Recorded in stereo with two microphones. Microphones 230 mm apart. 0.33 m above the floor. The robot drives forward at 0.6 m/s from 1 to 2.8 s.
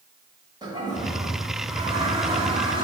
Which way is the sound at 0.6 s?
20° right (ahead or behind).